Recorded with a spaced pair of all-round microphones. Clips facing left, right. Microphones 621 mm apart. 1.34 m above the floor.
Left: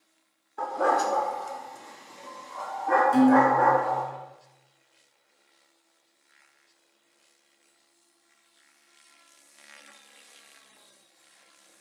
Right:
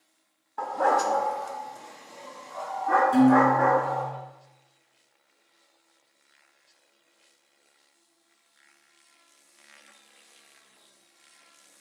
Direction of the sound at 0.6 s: 25° right (ahead or behind).